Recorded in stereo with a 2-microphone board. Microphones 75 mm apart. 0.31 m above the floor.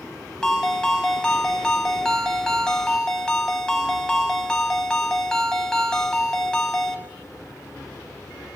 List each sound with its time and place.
0.4 s a ringtone: 10° left (ahead or behind), 1.0 m